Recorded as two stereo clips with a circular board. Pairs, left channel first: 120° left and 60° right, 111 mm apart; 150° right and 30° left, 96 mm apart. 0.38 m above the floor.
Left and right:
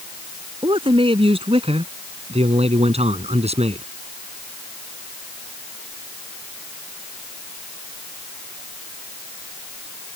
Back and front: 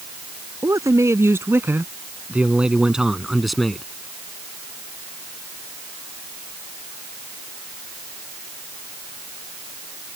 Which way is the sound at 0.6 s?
25° right.